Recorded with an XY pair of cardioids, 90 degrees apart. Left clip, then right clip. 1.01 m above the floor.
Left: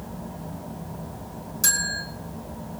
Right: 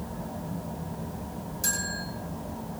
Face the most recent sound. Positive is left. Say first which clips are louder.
# left 7 dB
turn(degrees=60)